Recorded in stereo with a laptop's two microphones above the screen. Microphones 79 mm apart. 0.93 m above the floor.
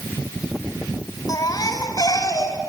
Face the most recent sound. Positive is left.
turn(degrees=50)  # may be behind; listen again after turning